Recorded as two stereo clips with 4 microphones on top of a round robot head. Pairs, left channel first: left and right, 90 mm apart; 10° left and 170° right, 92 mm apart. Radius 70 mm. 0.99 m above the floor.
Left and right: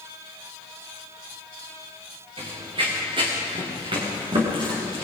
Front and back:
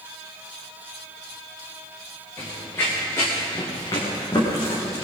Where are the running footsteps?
65° right, 5.5 m; by 5.0 s 55° right, 7 m.